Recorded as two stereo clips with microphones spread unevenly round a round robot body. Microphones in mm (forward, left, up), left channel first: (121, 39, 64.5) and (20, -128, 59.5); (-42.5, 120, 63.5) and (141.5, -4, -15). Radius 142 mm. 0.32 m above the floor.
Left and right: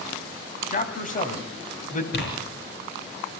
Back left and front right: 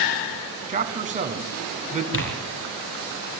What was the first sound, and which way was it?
A man speaking, 10° left.